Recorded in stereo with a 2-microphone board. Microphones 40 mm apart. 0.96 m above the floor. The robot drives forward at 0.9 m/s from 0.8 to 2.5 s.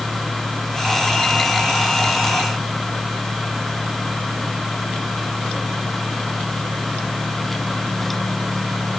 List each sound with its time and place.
Only background noise.